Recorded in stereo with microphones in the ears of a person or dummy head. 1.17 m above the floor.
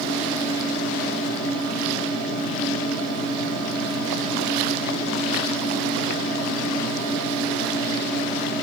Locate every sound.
0.0 s a fan: 40° left (ahead or behind), 1.2 m